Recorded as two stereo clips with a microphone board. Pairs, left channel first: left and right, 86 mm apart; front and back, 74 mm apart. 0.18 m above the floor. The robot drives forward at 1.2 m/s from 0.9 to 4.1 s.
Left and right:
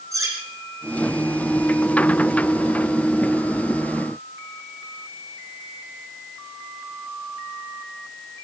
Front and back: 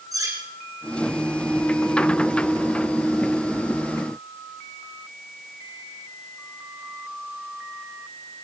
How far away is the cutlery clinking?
About 5.5 m.